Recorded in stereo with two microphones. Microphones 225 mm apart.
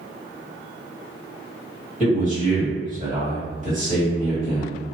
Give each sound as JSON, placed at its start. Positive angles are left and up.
{"t": 2.0, "sound": "a man speaking", "side_deg": -30, "distance_m": 1.9}